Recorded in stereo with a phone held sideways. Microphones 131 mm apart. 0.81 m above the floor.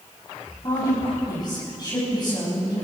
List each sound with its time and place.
0.6 s a woman speaking: 35° left (ahead or behind), 5.5 m